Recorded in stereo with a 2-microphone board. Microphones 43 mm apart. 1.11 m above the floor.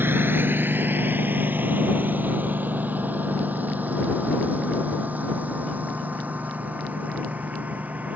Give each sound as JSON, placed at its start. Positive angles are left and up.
{"t": 0.0, "sound": "a lawn mower", "side_deg": -55}